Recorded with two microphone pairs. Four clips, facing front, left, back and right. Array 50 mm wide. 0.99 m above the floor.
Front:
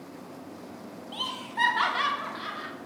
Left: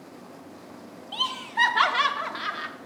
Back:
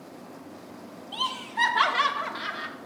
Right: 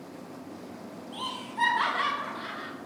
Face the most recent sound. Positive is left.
turn(degrees=105)